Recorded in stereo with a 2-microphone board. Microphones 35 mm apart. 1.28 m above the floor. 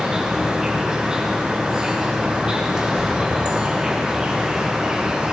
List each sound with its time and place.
0.0 s an insect: 25° right (ahead or behind), 2.0 m